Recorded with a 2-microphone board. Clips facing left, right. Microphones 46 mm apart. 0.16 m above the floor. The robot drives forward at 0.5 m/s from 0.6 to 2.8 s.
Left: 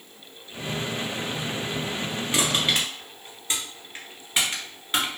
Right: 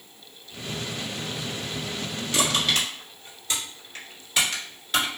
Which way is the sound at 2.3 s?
25° left (ahead or behind).